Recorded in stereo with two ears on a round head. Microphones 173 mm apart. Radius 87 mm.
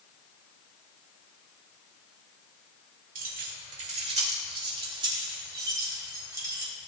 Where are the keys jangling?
45° right (ahead or behind), 2 m; by 6.7 s 15° right (ahead or behind), 4 m.